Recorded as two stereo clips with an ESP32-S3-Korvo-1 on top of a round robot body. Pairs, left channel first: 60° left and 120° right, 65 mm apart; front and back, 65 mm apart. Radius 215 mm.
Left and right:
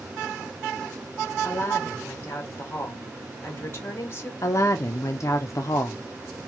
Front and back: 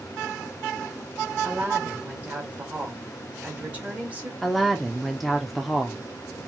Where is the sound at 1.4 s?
110° left, 1.5 m.